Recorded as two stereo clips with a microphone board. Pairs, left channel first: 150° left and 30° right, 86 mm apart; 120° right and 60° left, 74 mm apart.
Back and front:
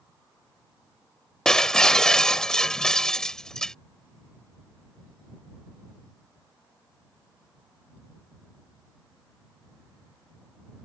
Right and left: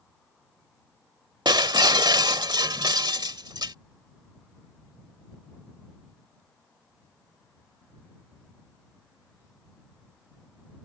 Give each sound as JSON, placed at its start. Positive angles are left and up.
{"t": 1.4, "sound": "breaking glass", "azimuth_deg": 65}